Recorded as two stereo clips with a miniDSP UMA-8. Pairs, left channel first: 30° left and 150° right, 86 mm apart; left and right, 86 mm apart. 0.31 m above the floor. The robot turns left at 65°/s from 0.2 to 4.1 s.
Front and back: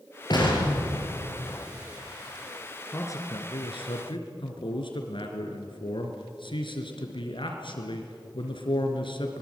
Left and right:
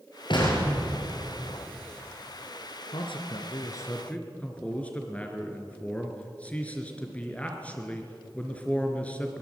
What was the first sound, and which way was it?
An explosion, 65° left.